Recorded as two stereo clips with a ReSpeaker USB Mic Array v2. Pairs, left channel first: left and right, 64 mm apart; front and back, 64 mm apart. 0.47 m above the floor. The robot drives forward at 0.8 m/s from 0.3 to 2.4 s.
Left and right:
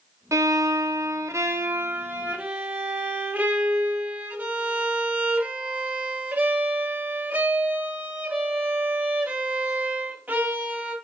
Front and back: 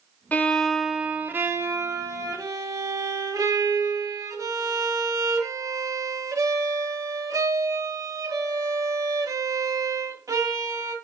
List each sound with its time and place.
0.3 s a violin: 60° right, 0.9 m; by 10.9 s 155° right, 1.5 m